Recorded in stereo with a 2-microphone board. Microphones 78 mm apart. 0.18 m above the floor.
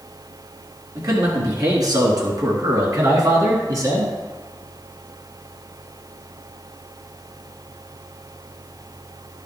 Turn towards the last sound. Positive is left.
turn(degrees=-45)  # may be behind; listen again after turning